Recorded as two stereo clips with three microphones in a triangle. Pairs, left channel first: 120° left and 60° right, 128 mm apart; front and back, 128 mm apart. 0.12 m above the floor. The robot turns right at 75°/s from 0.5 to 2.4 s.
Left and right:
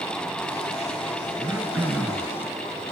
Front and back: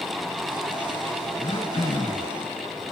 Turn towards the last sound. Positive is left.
turn(degrees=65)